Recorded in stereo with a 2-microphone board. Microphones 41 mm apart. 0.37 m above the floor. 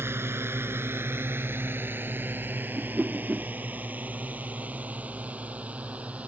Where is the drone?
75° right (ahead or behind); by 6.3 s 35° right (ahead or behind).